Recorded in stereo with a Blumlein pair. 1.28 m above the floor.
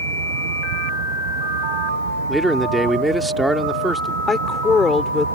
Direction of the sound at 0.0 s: 55° right.